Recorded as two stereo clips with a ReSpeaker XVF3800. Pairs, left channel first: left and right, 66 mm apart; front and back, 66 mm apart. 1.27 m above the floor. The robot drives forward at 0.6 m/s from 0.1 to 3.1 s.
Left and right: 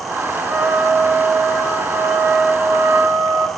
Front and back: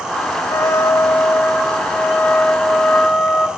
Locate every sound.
0.4 s a trumpet: 30° right, 2.0 m; by 3.5 s 90° right, 1.2 m